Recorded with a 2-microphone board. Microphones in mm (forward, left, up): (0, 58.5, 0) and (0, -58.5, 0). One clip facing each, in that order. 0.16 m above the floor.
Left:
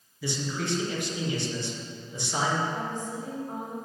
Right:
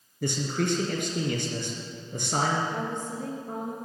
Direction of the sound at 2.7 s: 65° right (ahead or behind).